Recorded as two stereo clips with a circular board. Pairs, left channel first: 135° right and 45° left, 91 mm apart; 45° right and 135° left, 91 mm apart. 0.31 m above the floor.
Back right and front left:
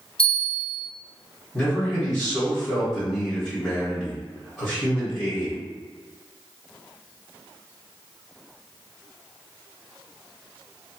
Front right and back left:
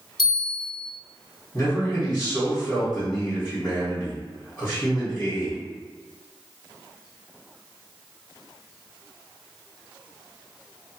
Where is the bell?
130° right, 1.7 m.